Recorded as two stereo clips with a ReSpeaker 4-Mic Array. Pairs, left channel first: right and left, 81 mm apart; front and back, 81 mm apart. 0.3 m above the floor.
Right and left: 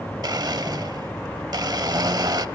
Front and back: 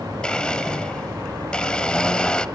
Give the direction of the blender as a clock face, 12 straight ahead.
9 o'clock.